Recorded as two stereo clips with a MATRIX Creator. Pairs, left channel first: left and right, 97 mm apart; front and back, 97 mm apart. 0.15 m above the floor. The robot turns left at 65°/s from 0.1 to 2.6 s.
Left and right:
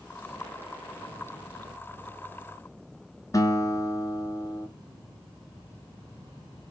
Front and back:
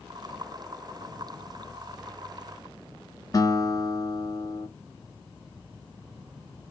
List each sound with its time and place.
3.3 s a guitar: 45° left, 0.6 m